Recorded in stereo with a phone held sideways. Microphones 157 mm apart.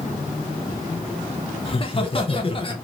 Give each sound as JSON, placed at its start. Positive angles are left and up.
{"t": 1.6, "sound": "laughter", "side_deg": 35, "distance_m": 0.6}